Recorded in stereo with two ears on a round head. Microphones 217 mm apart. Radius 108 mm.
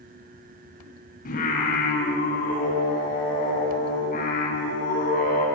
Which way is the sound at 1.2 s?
35° left (ahead or behind).